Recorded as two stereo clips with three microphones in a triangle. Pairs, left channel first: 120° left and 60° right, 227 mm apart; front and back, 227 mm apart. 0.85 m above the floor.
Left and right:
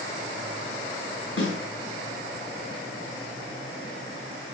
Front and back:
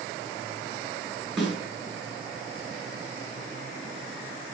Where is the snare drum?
90° left, 7 m.